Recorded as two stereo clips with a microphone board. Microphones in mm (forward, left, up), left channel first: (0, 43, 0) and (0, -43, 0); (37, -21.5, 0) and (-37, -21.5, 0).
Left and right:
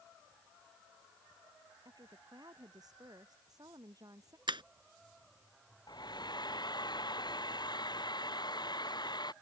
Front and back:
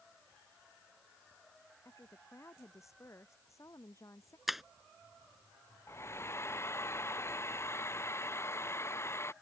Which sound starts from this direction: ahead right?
A woman speaking, at 1.9 s.